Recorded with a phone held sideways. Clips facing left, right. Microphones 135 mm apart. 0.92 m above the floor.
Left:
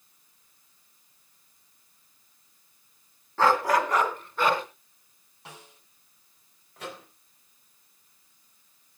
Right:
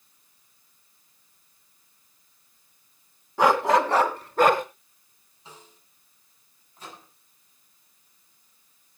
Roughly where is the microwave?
Left.